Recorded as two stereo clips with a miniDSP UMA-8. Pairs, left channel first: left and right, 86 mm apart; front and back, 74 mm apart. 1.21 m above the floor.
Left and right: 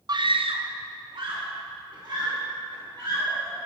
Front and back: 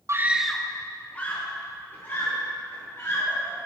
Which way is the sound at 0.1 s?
130° right.